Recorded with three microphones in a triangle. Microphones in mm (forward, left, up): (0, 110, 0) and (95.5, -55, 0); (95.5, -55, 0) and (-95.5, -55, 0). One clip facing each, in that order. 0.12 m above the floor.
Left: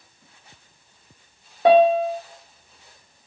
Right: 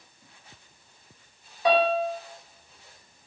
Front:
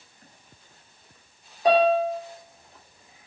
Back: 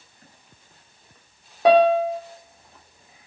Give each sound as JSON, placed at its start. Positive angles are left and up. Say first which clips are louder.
{"t": 1.6, "sound": "a piano", "louder": "left 8 dB, back 4 dB", "azimuth_deg": 160, "distance_m": 2.0}